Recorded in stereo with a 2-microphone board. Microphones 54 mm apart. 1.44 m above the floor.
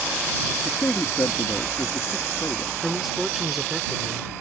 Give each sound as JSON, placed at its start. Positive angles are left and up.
{"t": 0.6, "sound": "a man speaking", "side_deg": 50}
{"t": 2.8, "sound": "a man speaking", "side_deg": 0}